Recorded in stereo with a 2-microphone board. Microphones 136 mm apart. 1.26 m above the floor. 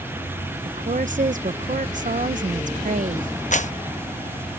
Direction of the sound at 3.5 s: 65° left (ahead or behind).